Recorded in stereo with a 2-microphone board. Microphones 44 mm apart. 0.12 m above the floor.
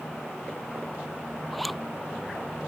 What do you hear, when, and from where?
1.5 s a zipper: centre (ahead or behind)